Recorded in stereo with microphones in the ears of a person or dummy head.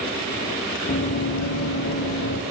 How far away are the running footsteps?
About 1.8 m.